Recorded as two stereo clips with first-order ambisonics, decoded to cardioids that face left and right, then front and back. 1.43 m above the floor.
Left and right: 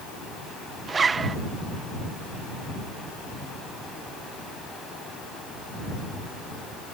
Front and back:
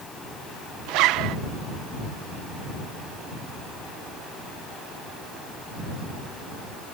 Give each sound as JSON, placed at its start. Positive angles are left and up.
{"t": 0.9, "sound": "a zipper", "azimuth_deg": -160}